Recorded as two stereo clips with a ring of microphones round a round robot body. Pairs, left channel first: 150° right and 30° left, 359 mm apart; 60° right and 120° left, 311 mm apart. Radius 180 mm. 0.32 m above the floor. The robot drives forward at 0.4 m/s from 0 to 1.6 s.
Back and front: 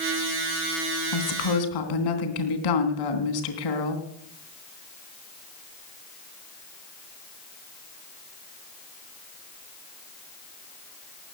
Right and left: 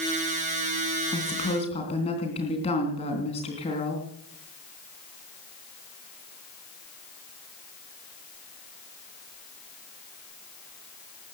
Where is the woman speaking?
130° right, 3 m; by 4.0 s 135° right, 3 m.